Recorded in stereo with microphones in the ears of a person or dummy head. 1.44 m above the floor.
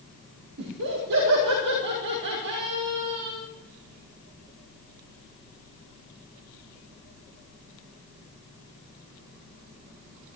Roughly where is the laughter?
Right.